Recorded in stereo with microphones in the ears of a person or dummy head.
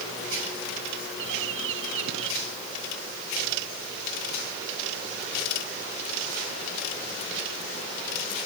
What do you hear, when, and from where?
1.2 s a bird: 85° right